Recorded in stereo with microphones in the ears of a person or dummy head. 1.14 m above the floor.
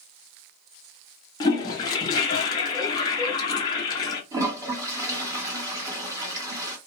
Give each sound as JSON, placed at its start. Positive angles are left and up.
{"t": 1.4, "sound": "a toilet flushing", "side_deg": 20, "distance_m": 0.7}
{"t": 4.3, "sound": "a toilet flushing", "side_deg": -15, "distance_m": 1.1}